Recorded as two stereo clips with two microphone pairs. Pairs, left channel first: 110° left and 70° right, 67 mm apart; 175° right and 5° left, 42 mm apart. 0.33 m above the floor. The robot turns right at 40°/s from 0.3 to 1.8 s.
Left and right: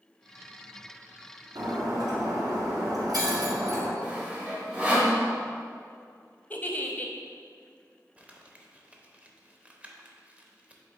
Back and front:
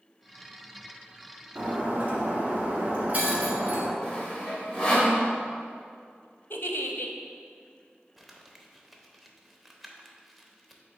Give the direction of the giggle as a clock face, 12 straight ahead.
6 o'clock.